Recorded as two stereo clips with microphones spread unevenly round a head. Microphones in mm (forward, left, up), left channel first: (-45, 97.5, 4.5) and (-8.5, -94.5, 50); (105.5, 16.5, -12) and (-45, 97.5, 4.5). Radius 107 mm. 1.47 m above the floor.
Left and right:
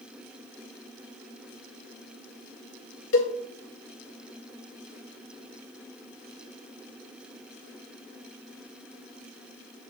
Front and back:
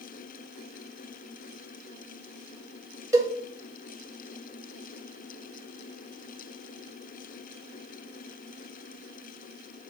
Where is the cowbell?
80° left, 1.4 m.